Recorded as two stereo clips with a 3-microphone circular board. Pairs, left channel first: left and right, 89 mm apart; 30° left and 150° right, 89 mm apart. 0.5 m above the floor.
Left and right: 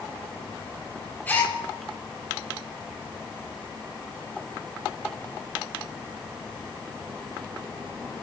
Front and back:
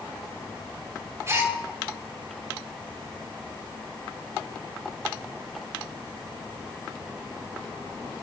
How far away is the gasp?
About 3 m.